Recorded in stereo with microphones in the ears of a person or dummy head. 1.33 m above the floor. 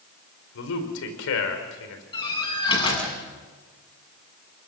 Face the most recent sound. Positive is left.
turn(degrees=25)  # may be behind; listen again after turning